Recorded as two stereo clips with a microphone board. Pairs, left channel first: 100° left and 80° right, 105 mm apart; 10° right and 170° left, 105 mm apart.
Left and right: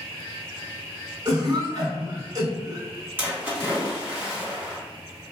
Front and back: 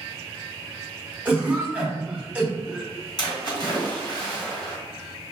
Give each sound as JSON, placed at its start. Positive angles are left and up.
{"t": 1.2, "sound": "a cough", "azimuth_deg": -120, "distance_m": 1.5}
{"t": 3.2, "sound": "a splash", "azimuth_deg": -20, "distance_m": 2.0}